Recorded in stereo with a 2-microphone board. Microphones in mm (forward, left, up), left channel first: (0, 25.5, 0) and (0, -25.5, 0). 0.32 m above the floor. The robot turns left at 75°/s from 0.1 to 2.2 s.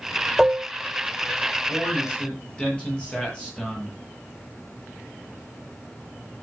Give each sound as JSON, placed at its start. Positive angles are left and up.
{"t": 0.4, "sound": "dishes clattering", "side_deg": -10, "distance_m": 0.7}
{"t": 1.7, "sound": "a man speaking", "azimuth_deg": 55, "distance_m": 9.5}